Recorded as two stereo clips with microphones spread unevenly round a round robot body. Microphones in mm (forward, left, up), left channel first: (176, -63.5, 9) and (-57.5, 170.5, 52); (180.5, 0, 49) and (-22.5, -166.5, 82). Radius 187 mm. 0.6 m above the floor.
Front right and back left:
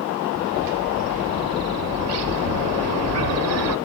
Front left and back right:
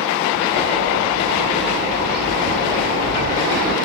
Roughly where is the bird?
Behind.